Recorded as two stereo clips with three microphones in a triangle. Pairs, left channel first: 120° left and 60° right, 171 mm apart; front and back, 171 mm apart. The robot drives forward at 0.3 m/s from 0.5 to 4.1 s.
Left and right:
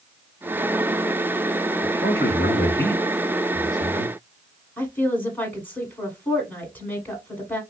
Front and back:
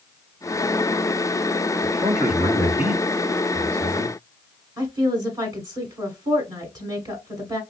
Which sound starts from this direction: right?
A man speaking, at 1.8 s.